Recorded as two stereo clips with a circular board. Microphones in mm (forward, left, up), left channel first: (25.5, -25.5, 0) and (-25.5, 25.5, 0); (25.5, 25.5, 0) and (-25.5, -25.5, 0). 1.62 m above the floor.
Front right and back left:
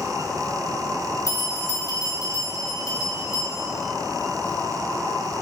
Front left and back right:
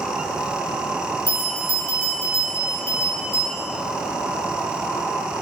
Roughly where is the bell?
Ahead.